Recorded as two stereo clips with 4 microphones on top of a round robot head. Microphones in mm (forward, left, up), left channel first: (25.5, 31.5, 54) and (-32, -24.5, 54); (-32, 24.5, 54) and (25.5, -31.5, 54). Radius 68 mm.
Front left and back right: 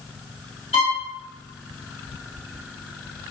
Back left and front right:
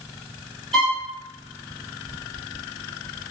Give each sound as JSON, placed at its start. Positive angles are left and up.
{"t": 0.7, "sound": "a violin", "azimuth_deg": 50, "distance_m": 0.7}